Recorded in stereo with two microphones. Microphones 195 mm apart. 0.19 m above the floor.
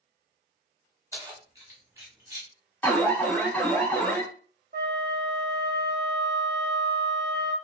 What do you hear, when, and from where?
1.1 s keys jangling: 15° right (ahead or behind), 1.0 m
2.8 s an alarm: 10° left (ahead or behind), 0.7 m
4.7 s a flute: 50° right (ahead or behind), 0.6 m